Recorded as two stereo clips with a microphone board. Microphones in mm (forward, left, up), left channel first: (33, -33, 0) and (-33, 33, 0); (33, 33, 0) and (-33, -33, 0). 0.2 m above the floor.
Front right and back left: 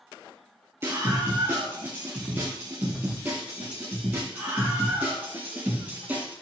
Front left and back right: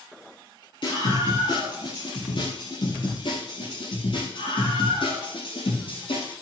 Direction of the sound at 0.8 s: 75° left.